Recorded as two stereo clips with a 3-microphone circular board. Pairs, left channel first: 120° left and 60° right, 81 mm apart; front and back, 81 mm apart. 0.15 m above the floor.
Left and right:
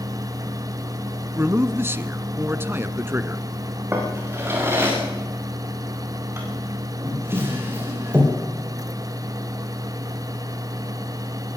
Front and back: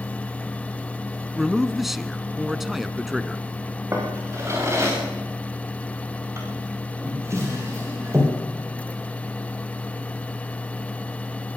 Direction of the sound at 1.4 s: 95° right.